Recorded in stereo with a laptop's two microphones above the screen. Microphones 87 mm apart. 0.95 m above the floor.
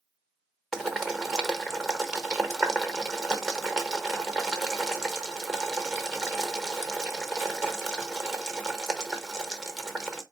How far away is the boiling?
About 1.0 m.